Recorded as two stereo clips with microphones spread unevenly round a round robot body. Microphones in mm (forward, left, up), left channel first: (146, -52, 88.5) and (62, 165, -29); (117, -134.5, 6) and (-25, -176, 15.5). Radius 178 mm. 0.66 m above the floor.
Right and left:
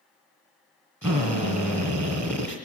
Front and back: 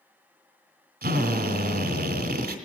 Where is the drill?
155° right, 2 m.